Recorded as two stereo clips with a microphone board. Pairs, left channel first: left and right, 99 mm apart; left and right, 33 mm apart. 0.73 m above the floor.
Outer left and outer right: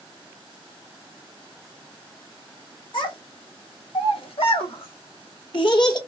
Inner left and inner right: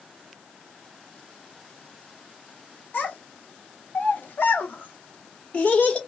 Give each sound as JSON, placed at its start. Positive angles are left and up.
{"t": 2.9, "sound": "a child speaking", "side_deg": 55, "distance_m": 1.7}